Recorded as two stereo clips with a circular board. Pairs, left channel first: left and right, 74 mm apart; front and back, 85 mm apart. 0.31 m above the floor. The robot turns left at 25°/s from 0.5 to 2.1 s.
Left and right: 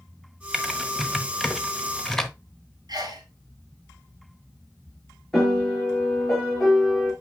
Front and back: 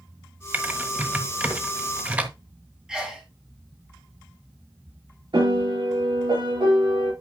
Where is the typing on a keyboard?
165° right, 1.0 m; by 2.3 s 155° left, 1.0 m.